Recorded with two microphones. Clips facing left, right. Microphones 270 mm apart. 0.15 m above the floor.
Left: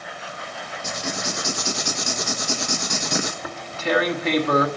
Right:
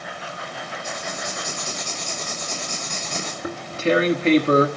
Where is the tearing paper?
30° right (ahead or behind), 1.4 m.